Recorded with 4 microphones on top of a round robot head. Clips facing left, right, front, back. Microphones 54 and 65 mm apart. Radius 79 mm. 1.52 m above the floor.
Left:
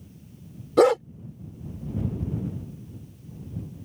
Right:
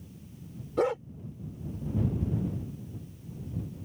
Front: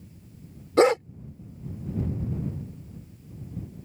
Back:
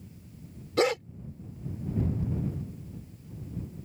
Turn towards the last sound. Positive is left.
turn(degrees=55)